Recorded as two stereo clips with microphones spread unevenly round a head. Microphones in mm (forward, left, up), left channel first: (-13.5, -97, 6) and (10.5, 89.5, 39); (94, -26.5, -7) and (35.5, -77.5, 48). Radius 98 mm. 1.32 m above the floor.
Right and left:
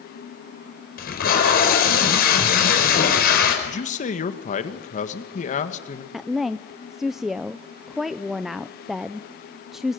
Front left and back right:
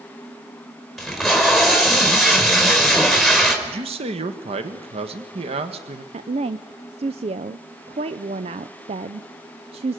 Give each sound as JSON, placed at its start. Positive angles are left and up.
{"t": 1.0, "sound": "tape being pulled", "azimuth_deg": -50, "distance_m": 5.0}
{"t": 3.6, "sound": "a man speaking", "azimuth_deg": -150, "distance_m": 1.6}
{"t": 6.1, "sound": "a woman speaking", "azimuth_deg": 180, "distance_m": 0.5}